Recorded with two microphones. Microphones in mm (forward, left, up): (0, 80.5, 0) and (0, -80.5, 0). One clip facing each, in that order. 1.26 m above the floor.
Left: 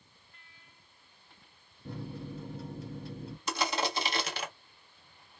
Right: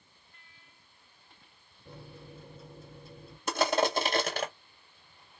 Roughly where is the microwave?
Left.